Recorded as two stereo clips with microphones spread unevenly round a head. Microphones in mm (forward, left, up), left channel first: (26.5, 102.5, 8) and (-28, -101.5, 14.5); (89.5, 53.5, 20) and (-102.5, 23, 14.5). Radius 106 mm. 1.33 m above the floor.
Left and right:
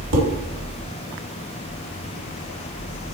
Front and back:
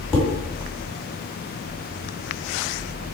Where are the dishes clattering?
70° right, 1.5 m.